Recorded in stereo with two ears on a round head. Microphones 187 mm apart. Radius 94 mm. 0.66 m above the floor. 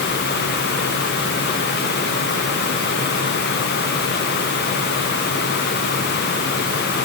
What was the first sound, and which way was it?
Only background noise.